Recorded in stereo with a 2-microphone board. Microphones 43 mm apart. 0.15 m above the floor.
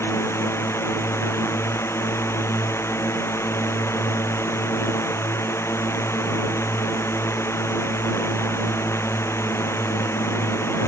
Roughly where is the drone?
Left.